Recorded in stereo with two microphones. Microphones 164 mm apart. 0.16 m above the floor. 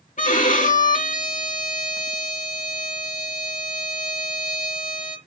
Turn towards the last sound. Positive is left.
turn(degrees=50)  # may be behind; listen again after turning